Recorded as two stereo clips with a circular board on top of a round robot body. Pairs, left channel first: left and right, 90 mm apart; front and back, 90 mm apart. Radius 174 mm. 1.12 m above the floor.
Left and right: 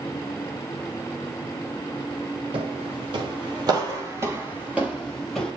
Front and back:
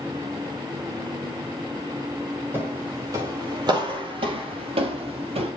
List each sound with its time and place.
2.5 s footsteps: 115° right, 3 m; by 5.5 s 175° left, 2.5 m